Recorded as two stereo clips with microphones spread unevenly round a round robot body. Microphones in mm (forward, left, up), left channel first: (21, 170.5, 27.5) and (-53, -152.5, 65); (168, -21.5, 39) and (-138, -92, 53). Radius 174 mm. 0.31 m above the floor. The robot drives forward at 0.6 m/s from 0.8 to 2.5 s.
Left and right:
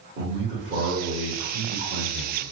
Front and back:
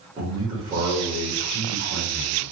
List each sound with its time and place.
0.2 s a man speaking: 100° right, 1.4 m; by 2.4 s 155° right, 1.7 m